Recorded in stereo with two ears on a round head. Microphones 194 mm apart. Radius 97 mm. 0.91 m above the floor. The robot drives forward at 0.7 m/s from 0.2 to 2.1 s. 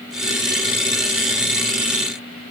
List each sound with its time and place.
Only background noise.